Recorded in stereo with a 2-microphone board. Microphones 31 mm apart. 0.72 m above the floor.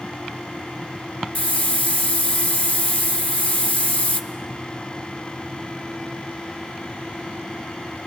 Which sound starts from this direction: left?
A hiss, at 1.4 s.